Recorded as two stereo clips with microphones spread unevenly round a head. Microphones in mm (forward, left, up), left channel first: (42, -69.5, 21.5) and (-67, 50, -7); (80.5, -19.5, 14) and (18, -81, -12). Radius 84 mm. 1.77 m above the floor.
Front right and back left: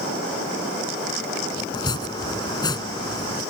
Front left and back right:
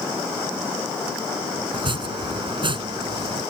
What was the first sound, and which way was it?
Chopping, 105° right.